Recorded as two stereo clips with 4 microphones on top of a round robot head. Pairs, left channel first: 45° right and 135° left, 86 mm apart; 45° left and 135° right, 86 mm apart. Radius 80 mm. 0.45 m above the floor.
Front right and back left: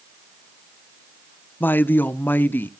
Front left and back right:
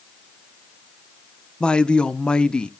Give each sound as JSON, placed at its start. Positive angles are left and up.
{"t": 1.6, "sound": "a woman speaking", "azimuth_deg": -20, "distance_m": 0.9}